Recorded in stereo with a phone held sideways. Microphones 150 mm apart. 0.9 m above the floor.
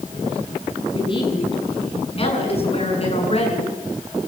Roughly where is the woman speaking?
Left.